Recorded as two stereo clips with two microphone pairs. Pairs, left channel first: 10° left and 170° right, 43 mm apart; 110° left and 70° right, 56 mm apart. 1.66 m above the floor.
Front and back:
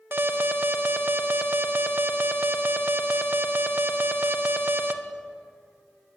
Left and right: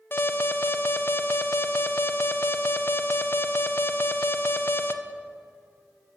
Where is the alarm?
155° left, 1.5 m.